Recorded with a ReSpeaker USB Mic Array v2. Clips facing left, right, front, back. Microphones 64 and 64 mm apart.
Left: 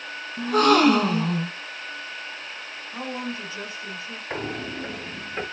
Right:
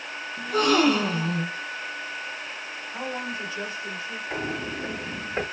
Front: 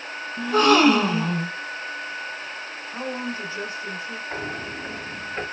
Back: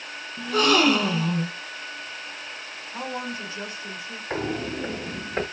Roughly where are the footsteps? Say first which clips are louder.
Left 1 dB, back 6 dB; behind left.